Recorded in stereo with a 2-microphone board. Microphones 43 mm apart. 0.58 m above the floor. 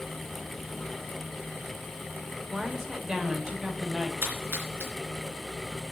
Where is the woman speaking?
10° right (ahead or behind), 2 m; by 4.1 s 25° right (ahead or behind), 3 m.